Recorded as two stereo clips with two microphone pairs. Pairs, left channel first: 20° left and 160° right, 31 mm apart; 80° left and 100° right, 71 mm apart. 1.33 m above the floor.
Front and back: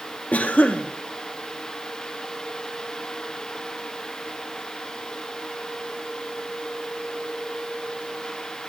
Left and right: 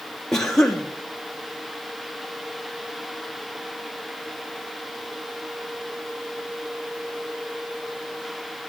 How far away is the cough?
About 1.0 m.